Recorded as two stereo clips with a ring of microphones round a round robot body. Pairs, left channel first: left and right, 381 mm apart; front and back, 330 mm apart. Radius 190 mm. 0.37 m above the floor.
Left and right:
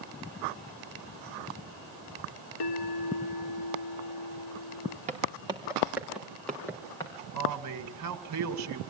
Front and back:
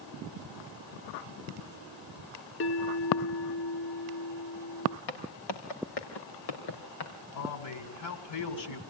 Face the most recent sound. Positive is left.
turn(degrees=-45)